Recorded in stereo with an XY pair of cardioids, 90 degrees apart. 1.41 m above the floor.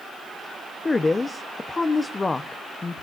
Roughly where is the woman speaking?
Ahead left.